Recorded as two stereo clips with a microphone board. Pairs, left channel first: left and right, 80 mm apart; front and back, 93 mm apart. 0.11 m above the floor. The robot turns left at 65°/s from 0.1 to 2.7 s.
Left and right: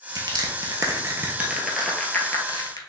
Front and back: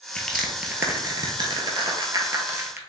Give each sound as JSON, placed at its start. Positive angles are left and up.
{"t": 0.1, "sound": "crushing", "azimuth_deg": -75, "distance_m": 0.8}